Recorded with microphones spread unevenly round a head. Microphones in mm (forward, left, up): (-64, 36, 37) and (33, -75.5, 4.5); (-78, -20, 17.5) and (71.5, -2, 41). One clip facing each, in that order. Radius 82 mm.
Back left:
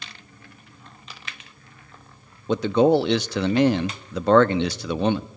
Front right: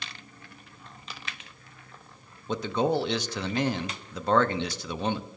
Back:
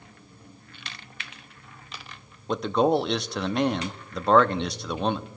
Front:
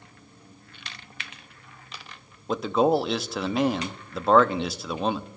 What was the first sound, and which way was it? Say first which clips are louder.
A man speaking: back left 8 dB, even; 100° left.